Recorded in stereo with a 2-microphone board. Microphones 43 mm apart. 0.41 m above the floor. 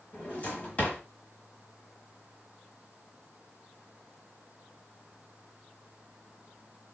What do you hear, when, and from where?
0.1 s a drawer: 35° left (ahead or behind), 1.1 m